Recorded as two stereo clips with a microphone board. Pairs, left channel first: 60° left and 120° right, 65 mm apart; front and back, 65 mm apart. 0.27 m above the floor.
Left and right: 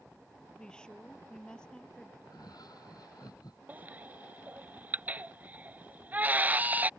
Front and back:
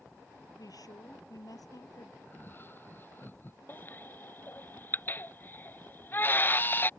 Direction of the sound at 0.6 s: 15° right.